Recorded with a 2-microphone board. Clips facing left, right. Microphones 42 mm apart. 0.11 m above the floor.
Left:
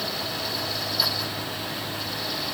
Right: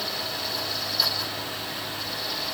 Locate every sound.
Only background noise.